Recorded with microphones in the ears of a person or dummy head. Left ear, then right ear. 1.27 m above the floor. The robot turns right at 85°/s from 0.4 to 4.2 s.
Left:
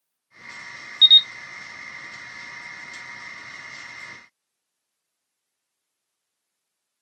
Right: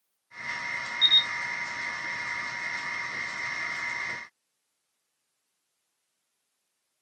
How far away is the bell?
No bell in this recording.